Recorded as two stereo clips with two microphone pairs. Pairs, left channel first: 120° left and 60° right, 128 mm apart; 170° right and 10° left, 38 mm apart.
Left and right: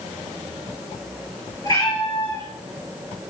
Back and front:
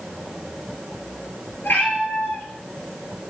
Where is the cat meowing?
165° left, 1.7 m.